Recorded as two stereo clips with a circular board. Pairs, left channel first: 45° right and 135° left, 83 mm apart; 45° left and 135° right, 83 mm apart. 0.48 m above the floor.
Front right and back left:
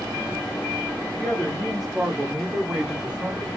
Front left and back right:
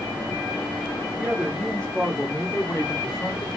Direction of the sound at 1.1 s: 90° right.